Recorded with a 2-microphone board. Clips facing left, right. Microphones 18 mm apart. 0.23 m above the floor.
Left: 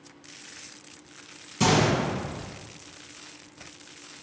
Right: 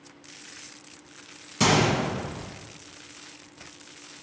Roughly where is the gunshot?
Right.